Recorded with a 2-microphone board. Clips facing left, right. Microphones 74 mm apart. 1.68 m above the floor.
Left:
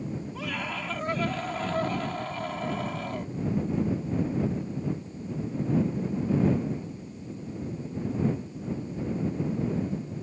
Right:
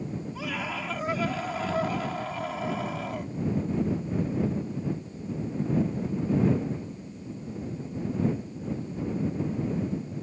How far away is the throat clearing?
No throat clearing in this recording.